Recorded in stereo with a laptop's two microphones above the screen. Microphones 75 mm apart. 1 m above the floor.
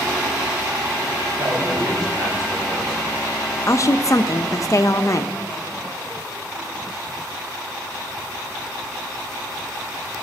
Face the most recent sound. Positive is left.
turn(degrees=45)  # may be behind; listen again after turning